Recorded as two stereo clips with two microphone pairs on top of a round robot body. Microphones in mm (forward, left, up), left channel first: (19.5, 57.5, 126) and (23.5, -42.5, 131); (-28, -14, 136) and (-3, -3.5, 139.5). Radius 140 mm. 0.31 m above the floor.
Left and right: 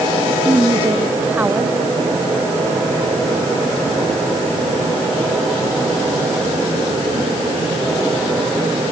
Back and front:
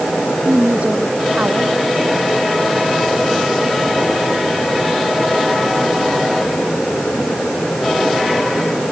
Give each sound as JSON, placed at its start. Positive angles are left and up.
{"t": 0.5, "sound": "a woman speaking", "azimuth_deg": -15}